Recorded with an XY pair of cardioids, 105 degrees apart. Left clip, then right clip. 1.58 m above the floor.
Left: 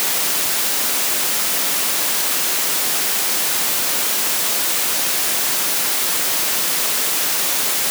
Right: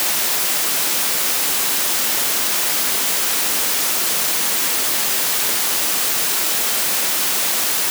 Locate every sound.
Only background noise.